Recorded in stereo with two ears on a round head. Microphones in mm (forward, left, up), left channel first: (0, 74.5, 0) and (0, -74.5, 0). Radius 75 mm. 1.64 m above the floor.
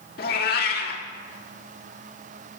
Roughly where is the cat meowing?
Left.